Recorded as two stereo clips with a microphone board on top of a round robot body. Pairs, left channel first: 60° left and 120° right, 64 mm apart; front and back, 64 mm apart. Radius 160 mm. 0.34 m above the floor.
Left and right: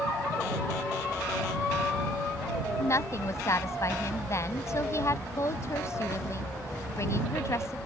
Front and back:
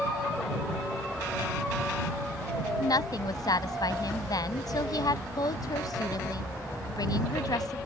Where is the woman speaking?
15° left.